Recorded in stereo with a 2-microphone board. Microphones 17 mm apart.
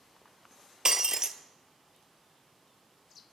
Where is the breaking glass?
30° right (ahead or behind), 0.5 m.